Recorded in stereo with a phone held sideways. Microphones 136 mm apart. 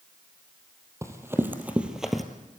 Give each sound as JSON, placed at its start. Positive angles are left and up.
{"t": 1.0, "sound": "running footsteps", "side_deg": -20, "distance_m": 3.0}